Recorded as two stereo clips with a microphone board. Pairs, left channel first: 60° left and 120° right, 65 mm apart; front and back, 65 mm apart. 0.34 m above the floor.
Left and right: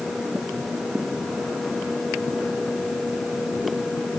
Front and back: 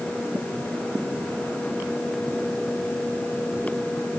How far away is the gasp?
I don't hear a gasp.